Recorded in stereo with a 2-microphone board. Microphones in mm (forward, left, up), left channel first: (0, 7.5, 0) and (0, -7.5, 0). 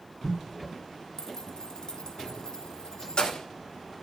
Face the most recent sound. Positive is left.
turn(degrees=80)